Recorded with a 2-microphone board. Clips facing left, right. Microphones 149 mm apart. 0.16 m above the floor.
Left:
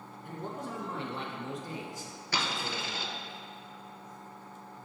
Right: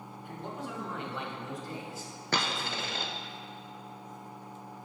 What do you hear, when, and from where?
0.2 s a man speaking: 50° left (ahead or behind), 1.5 m; by 3.1 s 10° right (ahead or behind), 1.2 m
2.3 s a dropped coin: 60° right (ahead or behind), 0.7 m